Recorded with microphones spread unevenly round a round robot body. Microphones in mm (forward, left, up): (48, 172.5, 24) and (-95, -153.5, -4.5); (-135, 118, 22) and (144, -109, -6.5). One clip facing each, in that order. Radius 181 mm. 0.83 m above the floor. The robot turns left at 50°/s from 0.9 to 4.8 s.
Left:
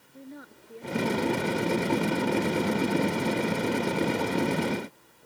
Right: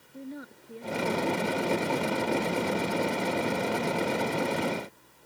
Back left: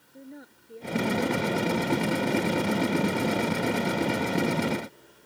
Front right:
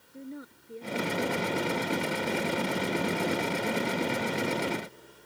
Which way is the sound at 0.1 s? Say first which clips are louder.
Right 4 dB, front right 3 dB; 120° right.